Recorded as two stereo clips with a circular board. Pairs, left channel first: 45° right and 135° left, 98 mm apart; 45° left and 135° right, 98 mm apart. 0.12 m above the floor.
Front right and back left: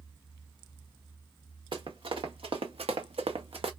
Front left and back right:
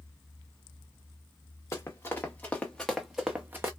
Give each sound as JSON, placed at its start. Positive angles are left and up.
{"t": 1.7, "sound": "running footsteps", "azimuth_deg": 105, "distance_m": 1.2}